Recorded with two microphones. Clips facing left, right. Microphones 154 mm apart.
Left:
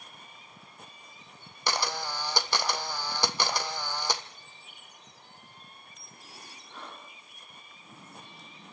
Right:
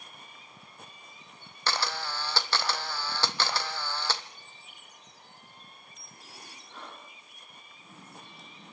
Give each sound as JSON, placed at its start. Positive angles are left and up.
{"t": 1.7, "sound": "a camera shutter", "side_deg": 15, "distance_m": 1.1}